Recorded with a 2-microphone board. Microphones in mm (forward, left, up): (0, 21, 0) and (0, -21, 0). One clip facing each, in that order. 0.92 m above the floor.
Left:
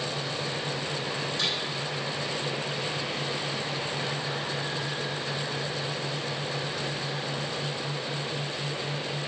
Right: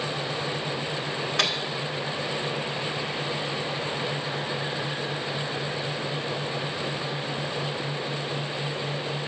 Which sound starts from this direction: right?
A microwave, at 1.4 s.